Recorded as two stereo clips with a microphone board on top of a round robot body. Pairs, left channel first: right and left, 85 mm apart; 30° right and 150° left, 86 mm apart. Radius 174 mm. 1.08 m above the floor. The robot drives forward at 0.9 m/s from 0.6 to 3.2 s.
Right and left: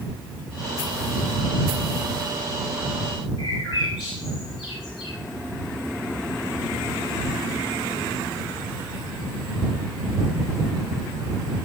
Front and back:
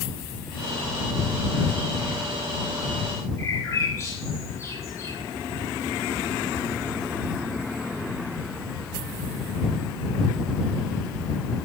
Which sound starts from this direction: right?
A bird, at 3.4 s.